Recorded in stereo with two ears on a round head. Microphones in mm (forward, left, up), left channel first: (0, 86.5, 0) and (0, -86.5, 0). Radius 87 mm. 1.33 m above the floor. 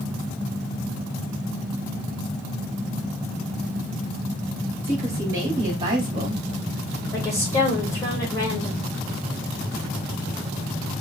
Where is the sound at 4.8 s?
15° right (ahead or behind), 3 m; by 6.4 s 30° right (ahead or behind), 2 m.